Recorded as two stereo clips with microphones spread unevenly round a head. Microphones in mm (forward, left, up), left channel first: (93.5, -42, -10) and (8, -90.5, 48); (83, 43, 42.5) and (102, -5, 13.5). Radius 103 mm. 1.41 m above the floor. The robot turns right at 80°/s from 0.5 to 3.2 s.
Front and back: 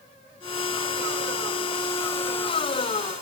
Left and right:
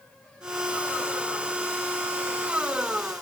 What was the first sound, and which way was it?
Only background noise.